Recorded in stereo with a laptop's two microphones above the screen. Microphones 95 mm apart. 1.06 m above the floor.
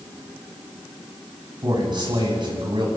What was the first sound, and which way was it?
A man speaking, 50° right (ahead or behind).